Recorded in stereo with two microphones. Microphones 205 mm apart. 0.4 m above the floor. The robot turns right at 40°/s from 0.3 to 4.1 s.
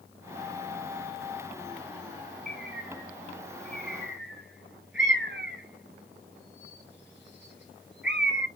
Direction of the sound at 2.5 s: Centre (ahead or behind).